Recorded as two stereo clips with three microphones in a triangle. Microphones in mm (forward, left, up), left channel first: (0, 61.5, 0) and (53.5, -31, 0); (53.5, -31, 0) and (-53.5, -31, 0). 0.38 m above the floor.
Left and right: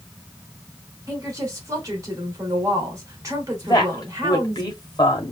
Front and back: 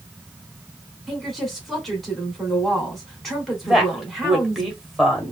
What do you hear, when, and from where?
1.1 s a woman speaking: 90° right, 1.6 m
3.6 s a woman speaking: 90° left, 1.3 m